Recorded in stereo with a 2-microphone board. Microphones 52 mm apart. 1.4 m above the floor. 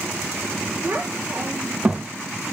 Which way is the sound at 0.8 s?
50° right (ahead or behind).